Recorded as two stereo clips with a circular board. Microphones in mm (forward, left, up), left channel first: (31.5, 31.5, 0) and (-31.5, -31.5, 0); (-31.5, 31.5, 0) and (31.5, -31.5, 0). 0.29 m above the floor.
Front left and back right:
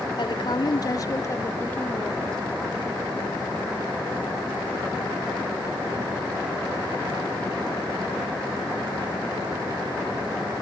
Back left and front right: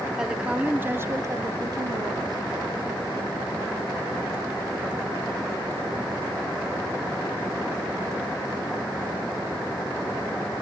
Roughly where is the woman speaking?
Ahead left.